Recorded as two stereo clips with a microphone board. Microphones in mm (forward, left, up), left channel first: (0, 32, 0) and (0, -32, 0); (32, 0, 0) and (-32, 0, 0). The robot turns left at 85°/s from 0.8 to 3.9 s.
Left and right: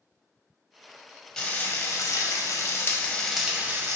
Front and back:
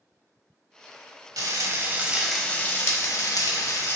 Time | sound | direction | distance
1.4 | frying | 170° left | 0.9 m